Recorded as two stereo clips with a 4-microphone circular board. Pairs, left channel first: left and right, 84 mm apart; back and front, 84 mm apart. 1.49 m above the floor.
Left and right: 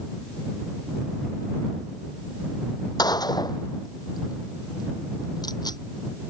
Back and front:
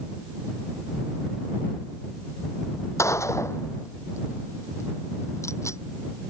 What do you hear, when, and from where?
3.0 s a gunshot: 125° left